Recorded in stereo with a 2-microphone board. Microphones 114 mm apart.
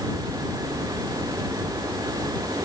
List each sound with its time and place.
Only background noise.